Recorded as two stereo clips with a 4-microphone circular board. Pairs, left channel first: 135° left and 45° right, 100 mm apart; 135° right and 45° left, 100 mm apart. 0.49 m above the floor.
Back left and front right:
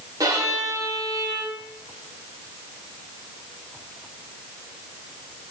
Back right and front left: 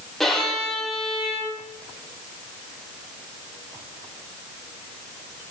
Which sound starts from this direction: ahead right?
A violin, at 0.2 s.